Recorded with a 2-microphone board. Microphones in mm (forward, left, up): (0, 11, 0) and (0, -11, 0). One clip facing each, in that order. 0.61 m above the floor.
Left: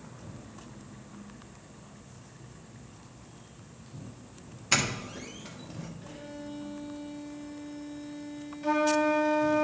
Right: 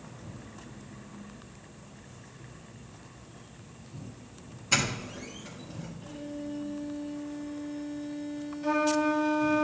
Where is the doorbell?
25° left (ahead or behind), 1.2 m.